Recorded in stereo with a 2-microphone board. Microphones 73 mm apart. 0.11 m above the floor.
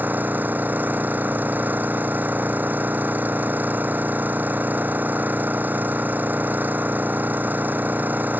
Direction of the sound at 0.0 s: 25° right (ahead or behind).